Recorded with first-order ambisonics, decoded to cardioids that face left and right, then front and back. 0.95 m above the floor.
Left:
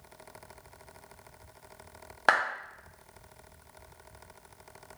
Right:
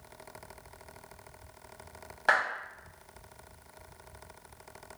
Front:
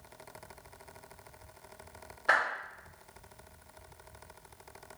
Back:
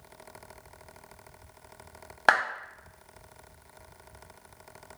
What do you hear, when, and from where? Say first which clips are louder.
2.3 s a clap: left 1 dB, back 5 dB; 150° left, 1.1 m